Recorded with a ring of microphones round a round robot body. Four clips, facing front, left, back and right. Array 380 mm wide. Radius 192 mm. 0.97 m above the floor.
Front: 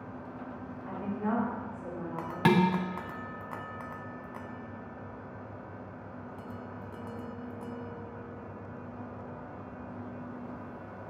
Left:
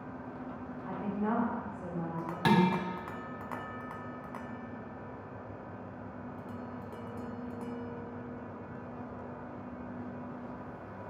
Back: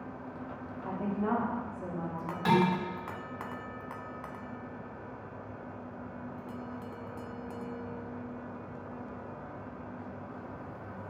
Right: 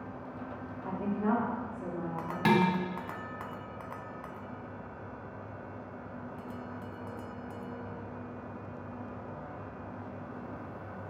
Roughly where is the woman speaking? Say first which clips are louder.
Right 3 dB, back 1 dB; behind right.